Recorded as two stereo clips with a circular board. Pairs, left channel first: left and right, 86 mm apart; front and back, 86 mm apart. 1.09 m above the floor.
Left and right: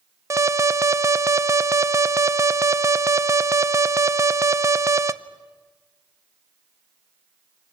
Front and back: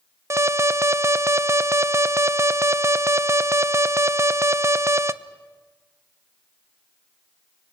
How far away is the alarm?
About 0.5 m.